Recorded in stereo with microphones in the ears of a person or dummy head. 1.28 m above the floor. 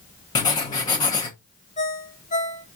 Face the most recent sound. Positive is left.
turn(degrees=35)  # may be behind; listen again after turning